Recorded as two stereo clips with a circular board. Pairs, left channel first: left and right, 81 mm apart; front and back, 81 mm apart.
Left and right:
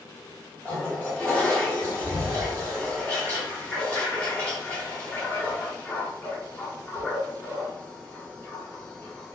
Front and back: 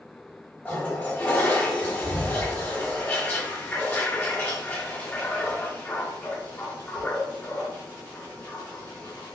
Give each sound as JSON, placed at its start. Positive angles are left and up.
{"t": 0.7, "sound": "a toilet flushing", "azimuth_deg": 40, "distance_m": 1.6}